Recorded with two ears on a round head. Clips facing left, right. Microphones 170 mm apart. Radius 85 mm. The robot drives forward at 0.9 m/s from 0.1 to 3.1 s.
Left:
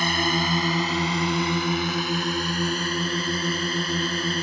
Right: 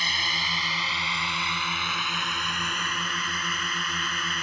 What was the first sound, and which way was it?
A drone, 45° left (ahead or behind).